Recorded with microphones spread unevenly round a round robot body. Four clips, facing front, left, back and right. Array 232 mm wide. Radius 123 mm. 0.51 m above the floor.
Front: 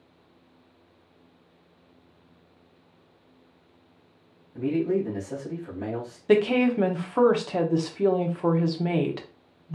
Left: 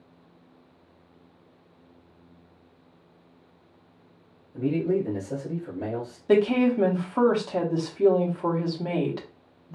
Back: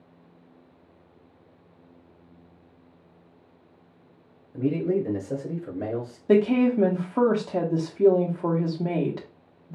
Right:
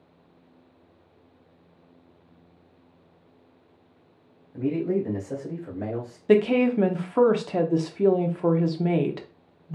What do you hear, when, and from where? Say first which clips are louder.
4.5 s a man speaking: even, even; 160° right, 1.9 m
6.3 s a woman speaking: right 1 dB, back 1 dB; 105° right, 0.7 m